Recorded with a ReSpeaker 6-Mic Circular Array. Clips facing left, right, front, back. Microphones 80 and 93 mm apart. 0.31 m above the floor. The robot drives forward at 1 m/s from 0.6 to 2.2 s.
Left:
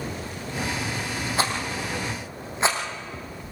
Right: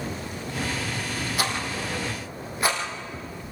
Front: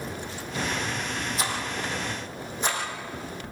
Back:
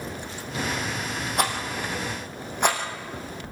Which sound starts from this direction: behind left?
A rattle, at 1.4 s.